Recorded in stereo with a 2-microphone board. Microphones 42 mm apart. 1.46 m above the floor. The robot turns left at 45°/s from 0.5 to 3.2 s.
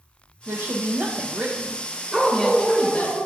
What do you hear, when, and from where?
0.5 s a woman speaking: 100° right, 1.0 m; by 3.1 s 140° left, 1.0 m
2.1 s a dog barking: 15° right, 1.5 m; by 3.3 s 60° right, 1.5 m